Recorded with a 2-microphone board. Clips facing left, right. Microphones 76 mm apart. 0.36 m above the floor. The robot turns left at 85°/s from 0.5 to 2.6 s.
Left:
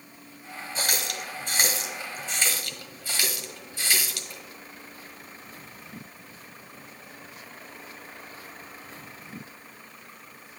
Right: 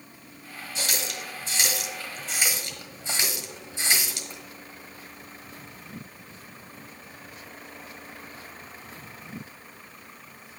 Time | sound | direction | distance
0.8 | a running tap | 45° left (ahead or behind) | 1.3 m